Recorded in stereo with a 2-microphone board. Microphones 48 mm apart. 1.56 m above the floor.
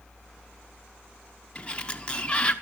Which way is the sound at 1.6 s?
25° left (ahead or behind).